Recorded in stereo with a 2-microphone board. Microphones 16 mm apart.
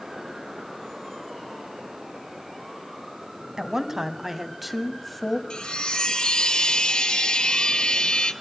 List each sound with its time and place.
3.6 s a woman speaking: 30° right (ahead or behind), 1.6 m; by 5.4 s 20° left (ahead or behind), 1.2 m
5.5 s a chime: 70° left (ahead or behind), 1.0 m